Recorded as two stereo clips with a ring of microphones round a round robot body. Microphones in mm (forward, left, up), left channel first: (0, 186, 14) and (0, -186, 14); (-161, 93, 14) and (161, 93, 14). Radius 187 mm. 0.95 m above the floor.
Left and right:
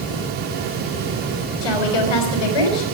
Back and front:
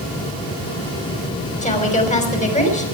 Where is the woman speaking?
110° left, 5.5 m.